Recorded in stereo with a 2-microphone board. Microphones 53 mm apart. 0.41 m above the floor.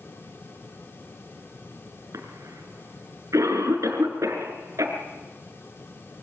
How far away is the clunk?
I don't hear a clunk.